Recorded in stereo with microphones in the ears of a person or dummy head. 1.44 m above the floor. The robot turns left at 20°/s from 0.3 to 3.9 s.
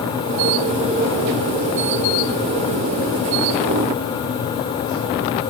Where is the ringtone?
I don't hear a ringtone.